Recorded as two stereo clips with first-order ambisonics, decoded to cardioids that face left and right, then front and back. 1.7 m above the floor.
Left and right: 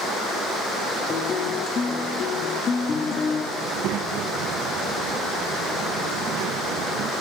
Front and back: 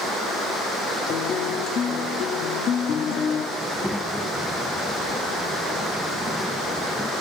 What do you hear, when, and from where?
1.1 s a guitar: 40° left, 1.5 m
3.6 s a child speaking: 85° right, 1.1 m